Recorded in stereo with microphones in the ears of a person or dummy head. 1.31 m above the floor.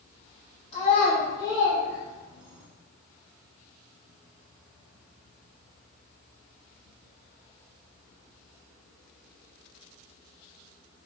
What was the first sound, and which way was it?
A child speaking, 40° left (ahead or behind).